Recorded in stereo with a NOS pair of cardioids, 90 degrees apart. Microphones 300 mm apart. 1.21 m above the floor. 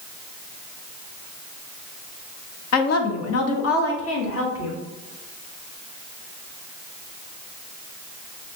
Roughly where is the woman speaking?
Ahead left.